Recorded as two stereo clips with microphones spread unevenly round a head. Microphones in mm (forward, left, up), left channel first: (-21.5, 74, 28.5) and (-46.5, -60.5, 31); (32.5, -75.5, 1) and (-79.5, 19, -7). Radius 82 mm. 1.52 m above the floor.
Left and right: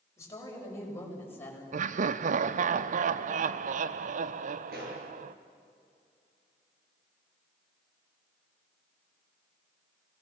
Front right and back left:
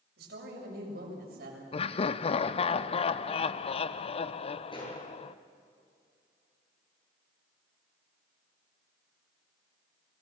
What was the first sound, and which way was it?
A woman speaking, 145° left.